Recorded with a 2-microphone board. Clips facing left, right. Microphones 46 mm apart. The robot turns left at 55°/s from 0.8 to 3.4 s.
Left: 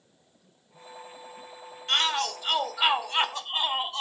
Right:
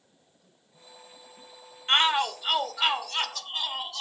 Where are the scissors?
I don't hear scissors.